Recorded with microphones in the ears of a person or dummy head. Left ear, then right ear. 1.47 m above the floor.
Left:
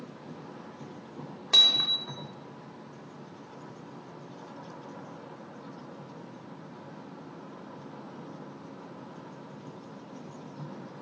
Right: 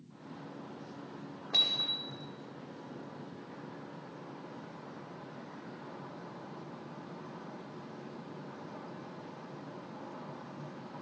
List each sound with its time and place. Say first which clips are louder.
1.5 s hammering: left 8 dB; 70° left (ahead or behind), 4 m